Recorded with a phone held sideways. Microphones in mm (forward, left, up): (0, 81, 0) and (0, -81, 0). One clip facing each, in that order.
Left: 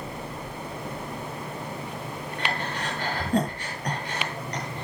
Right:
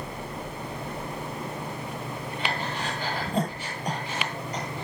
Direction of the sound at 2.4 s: 80° left.